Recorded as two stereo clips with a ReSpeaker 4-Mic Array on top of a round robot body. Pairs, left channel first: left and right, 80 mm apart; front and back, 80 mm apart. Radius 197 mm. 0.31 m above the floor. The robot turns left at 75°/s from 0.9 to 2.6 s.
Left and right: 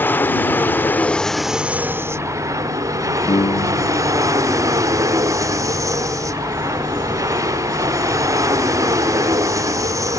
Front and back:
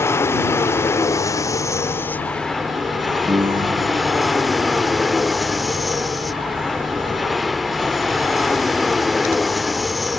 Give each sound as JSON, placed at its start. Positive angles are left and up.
{"t": 0.0, "sound": "an aircraft", "azimuth_deg": 35}
{"t": 3.3, "sound": "a piano", "azimuth_deg": 135}